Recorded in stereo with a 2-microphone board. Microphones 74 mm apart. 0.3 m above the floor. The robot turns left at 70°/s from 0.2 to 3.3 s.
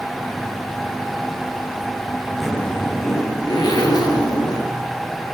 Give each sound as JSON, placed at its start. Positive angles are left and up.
{"t": 2.4, "sound": "a zipper", "azimuth_deg": 180, "distance_m": 5.5}